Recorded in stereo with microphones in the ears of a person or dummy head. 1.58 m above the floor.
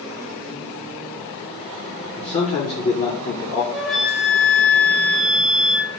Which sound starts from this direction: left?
A man speaking, at 2.2 s.